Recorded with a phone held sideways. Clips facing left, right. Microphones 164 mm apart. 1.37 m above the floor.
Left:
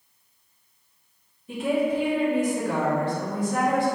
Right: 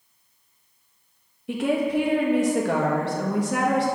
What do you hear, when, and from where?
1.5 s a woman speaking: 75° right (ahead or behind), 1.2 m